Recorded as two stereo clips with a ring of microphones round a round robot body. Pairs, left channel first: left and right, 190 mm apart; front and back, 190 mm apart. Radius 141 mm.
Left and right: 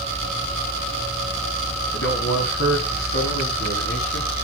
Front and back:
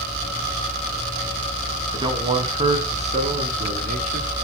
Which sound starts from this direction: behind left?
A man speaking, at 1.9 s.